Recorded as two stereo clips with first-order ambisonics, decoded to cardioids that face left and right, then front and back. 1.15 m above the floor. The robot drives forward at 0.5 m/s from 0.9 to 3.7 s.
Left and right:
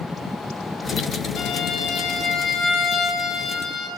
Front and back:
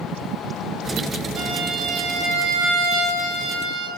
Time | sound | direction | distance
1.4 | a violin | 140° left | 2 m